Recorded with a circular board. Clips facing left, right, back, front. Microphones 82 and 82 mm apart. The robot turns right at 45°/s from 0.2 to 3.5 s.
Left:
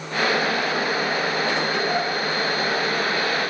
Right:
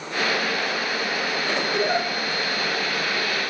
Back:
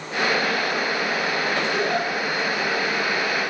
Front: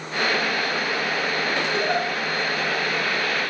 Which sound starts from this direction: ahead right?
A giggle, at 1.7 s.